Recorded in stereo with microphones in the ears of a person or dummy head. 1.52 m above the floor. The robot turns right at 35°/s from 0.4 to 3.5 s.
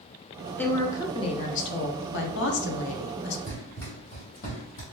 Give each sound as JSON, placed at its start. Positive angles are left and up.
{"t": 0.6, "sound": "a woman speaking", "azimuth_deg": 5, "distance_m": 0.6}
{"t": 3.5, "sound": "running footsteps", "side_deg": 20, "distance_m": 1.8}